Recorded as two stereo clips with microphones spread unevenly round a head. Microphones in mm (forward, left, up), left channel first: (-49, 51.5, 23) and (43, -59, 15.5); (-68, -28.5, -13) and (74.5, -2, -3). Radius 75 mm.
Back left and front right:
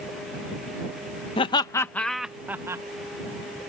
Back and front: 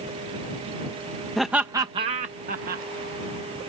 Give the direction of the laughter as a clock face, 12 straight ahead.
8 o'clock.